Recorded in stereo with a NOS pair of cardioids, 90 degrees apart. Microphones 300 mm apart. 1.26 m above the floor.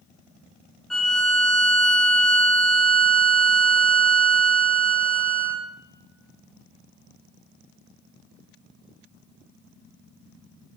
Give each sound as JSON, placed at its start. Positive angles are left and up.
{"t": 0.9, "sound": "a violin", "azimuth_deg": 0, "distance_m": 0.6}